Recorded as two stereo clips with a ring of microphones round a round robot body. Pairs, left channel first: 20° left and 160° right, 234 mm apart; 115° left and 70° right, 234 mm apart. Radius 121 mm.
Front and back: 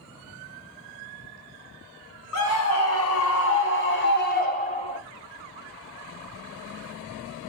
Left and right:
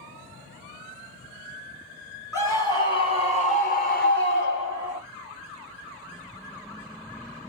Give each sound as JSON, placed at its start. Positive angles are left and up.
{"t": 2.3, "sound": "a scream", "azimuth_deg": 35, "distance_m": 4.0}